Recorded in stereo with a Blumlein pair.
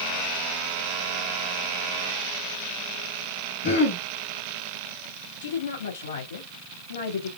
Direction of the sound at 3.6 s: 50° left.